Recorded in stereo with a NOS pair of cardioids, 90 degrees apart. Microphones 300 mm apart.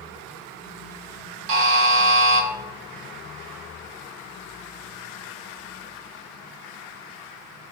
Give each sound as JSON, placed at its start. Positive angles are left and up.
{"t": 1.5, "sound": "a buzzer", "azimuth_deg": -40, "distance_m": 0.8}